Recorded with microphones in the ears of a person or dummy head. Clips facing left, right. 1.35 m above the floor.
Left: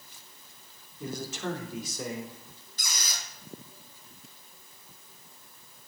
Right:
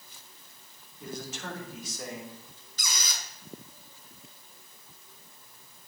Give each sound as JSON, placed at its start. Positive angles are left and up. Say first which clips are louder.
{"t": 1.0, "sound": "a man speaking", "louder": "left 4 dB", "side_deg": 80, "distance_m": 3.0}
{"t": 2.8, "sound": "a squeak", "louder": "right 2 dB", "side_deg": -70, "distance_m": 3.5}